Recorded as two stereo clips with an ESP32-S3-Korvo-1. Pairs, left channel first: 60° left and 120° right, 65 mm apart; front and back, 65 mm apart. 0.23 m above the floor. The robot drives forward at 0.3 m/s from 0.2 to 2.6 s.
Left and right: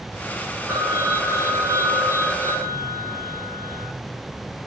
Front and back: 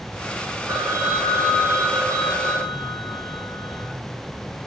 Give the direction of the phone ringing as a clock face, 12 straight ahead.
5 o'clock.